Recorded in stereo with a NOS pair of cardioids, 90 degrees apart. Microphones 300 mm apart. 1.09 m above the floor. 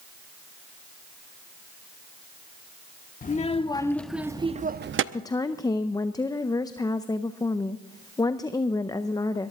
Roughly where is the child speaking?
Ahead left.